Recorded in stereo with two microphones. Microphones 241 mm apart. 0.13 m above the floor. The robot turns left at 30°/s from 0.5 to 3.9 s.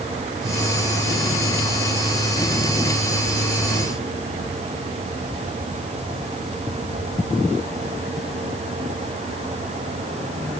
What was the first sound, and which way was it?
Only background noise.